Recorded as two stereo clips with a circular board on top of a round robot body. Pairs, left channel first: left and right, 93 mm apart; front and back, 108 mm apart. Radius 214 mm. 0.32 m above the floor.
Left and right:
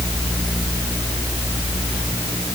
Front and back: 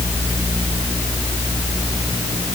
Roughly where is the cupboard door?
I don't hear a cupboard door.